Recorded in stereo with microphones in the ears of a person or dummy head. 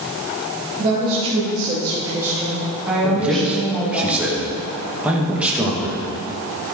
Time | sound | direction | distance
0.8 | a woman speaking | 35° right (ahead or behind) | 4 m
3.0 | a man speaking | 10° right (ahead or behind) | 2.5 m